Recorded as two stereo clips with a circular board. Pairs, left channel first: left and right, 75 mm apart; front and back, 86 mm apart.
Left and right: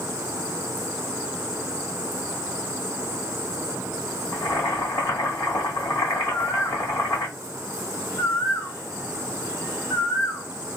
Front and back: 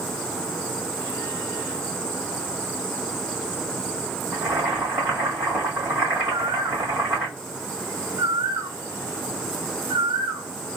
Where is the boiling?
115° left, 1.9 m.